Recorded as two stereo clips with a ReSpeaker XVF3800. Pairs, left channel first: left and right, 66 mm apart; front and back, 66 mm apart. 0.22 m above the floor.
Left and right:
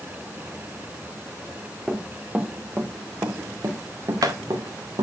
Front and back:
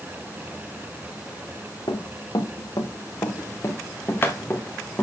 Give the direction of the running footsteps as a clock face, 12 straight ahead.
12 o'clock.